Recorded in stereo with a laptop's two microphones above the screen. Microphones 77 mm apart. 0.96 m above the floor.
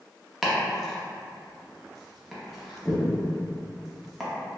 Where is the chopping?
Centre (ahead or behind), 0.5 m.